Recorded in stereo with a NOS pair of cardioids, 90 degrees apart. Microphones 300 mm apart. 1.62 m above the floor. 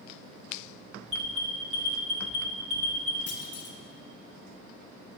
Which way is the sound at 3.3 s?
50° left.